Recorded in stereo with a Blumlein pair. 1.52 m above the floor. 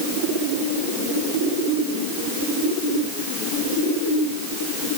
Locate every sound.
Only background noise.